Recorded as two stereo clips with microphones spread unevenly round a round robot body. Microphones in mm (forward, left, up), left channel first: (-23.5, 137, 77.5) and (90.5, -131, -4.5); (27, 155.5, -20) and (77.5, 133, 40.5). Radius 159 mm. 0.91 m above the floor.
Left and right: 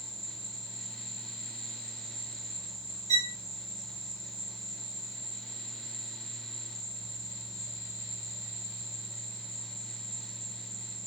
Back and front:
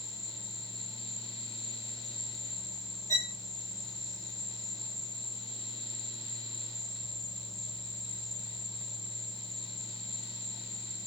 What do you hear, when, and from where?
0.0 s an insect: 135° right, 2 m
3.1 s a violin: 135° right, 1.3 m